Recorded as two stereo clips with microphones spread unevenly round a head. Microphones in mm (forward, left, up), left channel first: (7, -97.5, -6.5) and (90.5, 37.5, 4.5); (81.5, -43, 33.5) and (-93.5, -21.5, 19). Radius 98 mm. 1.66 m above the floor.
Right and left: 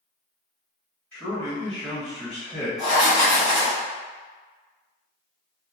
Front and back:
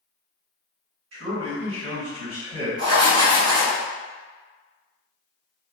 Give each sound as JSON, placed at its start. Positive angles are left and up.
{"t": 1.1, "sound": "a man speaking", "azimuth_deg": 155, "distance_m": 1.8}
{"t": 2.8, "sound": "writing", "azimuth_deg": 145, "distance_m": 1.3}